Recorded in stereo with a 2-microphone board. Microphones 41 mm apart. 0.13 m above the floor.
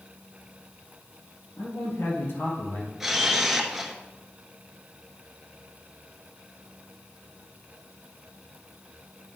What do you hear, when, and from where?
1.6 s a man speaking: 65° left (ahead or behind), 2.5 m; by 2.9 s 55° left (ahead or behind), 2.5 m
3.0 s a camera shutter: 10° right (ahead or behind), 1.1 m